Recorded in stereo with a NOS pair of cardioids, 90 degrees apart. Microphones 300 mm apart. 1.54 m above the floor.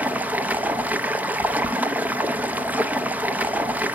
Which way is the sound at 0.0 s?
5° right.